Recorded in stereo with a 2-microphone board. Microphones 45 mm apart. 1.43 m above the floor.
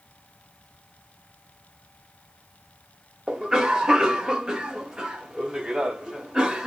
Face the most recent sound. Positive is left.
turn(degrees=-20)  # may be behind; listen again after turning